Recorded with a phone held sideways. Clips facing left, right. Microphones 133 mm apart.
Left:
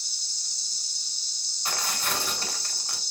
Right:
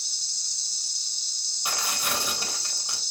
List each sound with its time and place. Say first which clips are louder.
0.0 s an insect: even; 65° right (ahead or behind), 1.7 m
1.6 s tearing paper: even; 15° right (ahead or behind), 1.1 m